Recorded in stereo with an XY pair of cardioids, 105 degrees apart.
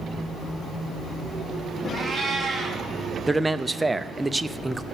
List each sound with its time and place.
1.9 s a cat meowing: 20° right, 4.5 m
3.3 s a man speaking: 15° right, 0.6 m